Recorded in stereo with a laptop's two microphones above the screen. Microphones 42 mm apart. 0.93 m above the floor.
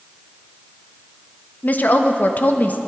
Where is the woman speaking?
45° left (ahead or behind), 0.7 m.